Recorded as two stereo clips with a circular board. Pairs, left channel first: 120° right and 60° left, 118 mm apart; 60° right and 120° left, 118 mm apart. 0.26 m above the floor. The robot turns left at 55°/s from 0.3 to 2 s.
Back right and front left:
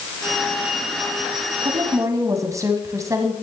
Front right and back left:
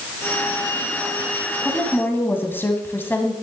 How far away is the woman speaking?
About 1.5 m.